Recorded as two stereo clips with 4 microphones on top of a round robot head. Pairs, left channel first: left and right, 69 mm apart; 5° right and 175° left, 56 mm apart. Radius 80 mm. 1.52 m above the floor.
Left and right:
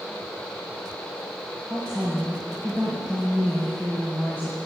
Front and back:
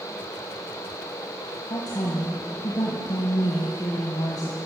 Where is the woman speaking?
20° right, 1.3 m.